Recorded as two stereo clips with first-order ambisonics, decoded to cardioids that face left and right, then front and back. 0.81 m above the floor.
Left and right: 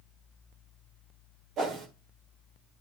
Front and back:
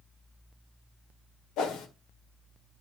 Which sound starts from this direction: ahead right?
A whoosh, at 1.6 s.